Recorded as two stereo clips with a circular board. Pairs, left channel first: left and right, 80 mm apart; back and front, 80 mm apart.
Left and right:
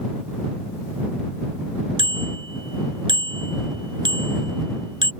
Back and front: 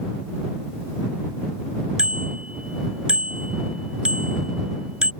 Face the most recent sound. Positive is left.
turn(degrees=-75)